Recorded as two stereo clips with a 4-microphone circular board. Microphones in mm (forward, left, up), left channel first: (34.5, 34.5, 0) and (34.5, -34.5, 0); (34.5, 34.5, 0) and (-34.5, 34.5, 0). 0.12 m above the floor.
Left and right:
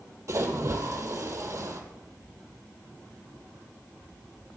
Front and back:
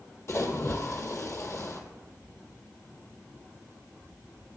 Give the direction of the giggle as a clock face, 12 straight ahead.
I don't hear a giggle.